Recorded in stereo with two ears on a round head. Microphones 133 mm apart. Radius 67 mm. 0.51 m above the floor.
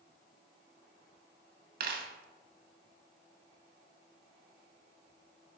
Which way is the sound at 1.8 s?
70° right (ahead or behind).